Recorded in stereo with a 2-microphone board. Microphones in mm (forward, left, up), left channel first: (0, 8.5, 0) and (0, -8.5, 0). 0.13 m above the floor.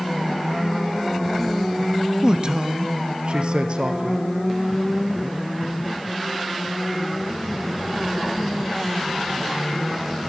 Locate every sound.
2.2 s a man speaking: 45° right (ahead or behind), 1.4 m; by 4.3 s 70° right (ahead or behind), 2.5 m